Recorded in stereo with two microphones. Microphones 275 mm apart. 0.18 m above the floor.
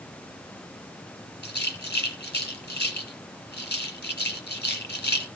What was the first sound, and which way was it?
A rattle, 40° left (ahead or behind).